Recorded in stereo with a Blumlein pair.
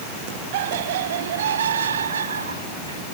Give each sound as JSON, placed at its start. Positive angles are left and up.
{"t": 0.5, "sound": "laughter", "azimuth_deg": -55}